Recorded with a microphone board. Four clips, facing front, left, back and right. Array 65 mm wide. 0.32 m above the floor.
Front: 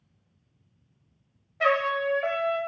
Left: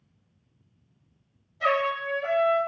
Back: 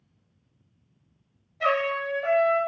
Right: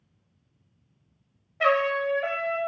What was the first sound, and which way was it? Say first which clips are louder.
A trumpet: right 2 dB, front 1 dB; 55° right.